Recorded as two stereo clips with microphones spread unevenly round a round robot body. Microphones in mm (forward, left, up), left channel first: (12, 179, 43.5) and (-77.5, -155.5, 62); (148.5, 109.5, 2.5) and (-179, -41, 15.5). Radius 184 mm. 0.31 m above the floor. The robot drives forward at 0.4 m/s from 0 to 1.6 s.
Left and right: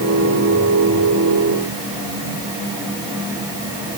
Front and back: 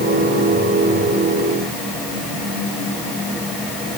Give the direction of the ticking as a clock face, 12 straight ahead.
I don't hear ticking.